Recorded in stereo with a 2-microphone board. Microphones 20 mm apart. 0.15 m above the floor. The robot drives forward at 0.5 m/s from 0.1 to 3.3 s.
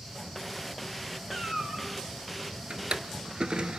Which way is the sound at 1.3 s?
35° right (ahead or behind).